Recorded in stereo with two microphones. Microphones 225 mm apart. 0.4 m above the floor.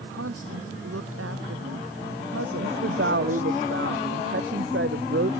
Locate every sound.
0.1 s a woman speaking: 85° right
2.6 s a woman speaking: 60° right (ahead or behind)